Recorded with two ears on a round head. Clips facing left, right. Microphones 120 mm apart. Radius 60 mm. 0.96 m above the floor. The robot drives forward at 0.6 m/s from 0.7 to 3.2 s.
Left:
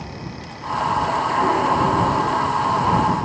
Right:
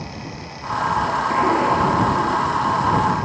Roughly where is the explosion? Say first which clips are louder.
Right 1 dB; centre.